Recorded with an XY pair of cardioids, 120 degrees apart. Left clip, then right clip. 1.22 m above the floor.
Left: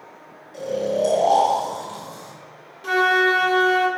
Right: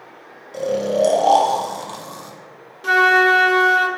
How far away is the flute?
About 0.9 m.